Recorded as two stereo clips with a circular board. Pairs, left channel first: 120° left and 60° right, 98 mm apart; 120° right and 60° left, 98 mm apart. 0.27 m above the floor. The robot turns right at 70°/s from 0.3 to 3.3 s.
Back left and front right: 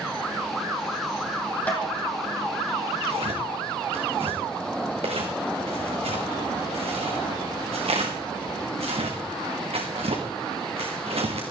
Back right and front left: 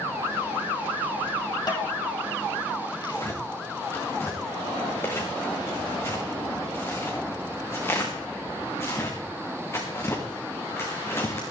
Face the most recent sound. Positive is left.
turn(degrees=-55)